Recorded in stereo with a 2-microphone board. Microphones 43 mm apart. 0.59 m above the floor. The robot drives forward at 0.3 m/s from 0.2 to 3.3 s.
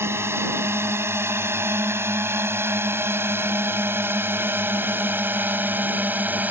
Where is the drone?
75° right (ahead or behind); by 6.5 s 45° right (ahead or behind).